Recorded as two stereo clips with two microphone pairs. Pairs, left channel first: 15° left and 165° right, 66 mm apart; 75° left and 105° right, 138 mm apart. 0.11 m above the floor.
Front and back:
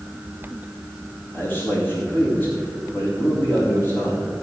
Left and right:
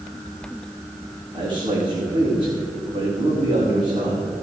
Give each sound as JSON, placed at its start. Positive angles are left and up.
{"t": 1.3, "sound": "a man speaking", "azimuth_deg": -45, "distance_m": 6.0}